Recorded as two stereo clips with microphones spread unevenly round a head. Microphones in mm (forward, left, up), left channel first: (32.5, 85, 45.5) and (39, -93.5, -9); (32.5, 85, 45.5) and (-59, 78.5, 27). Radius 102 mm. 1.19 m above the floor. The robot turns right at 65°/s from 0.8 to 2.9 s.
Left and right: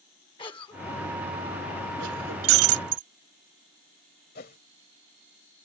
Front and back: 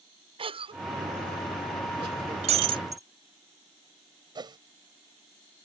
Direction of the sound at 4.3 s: 140° left.